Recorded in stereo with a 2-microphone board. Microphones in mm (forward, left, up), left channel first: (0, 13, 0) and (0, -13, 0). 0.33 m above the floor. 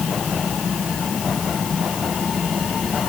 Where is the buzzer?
I don't hear a buzzer.